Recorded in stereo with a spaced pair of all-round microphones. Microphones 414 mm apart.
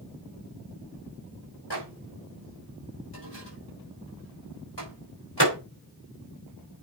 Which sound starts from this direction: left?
A microwave, at 1.7 s.